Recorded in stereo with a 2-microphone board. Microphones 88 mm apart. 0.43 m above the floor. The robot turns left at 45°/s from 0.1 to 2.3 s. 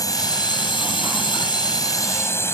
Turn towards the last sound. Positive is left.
turn(degrees=30)